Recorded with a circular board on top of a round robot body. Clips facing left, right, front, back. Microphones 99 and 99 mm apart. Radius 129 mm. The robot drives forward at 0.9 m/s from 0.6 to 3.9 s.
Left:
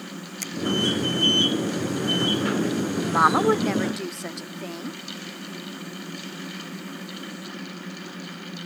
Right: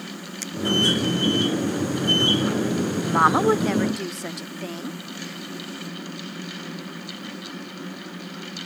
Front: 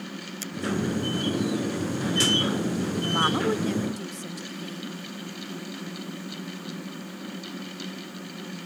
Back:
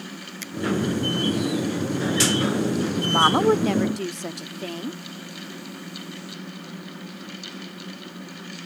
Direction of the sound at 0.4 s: 50° left.